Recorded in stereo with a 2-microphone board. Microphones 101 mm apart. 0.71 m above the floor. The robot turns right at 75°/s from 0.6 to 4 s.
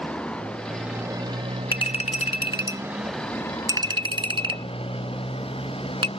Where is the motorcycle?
170° left; by 6.2 s 65° left.